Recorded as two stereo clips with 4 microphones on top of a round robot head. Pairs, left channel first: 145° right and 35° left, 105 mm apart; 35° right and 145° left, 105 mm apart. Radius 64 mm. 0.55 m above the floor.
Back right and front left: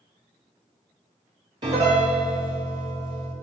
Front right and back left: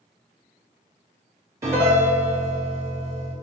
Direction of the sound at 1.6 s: 80° left.